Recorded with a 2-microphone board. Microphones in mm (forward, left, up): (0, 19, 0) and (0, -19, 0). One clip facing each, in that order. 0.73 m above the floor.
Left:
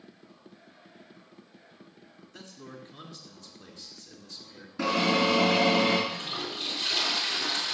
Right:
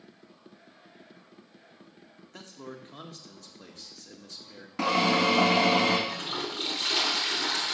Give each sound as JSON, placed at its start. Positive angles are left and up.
{"t": 2.3, "sound": "a man speaking", "side_deg": -55, "distance_m": 2.0}
{"t": 4.8, "sound": "a drill", "side_deg": -80, "distance_m": 3.5}
{"t": 6.1, "sound": "a toilet flushing", "side_deg": -50, "distance_m": 2.5}